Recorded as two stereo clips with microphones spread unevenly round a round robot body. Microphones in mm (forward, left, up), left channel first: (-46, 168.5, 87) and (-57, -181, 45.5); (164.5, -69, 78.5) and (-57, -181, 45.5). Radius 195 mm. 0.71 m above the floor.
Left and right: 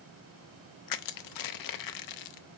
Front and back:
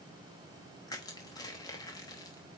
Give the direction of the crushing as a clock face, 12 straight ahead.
8 o'clock.